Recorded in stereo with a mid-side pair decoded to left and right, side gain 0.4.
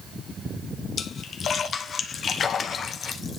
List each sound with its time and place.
1.0 s a splash: 60° left, 1.2 m